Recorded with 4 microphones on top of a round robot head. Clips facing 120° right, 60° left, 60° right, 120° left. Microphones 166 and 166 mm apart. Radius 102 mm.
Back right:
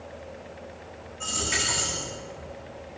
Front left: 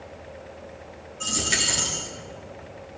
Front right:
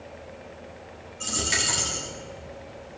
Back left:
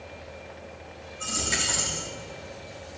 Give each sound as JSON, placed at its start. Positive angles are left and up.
{"t": 1.2, "sound": "a dropped coin", "azimuth_deg": 5, "distance_m": 1.7}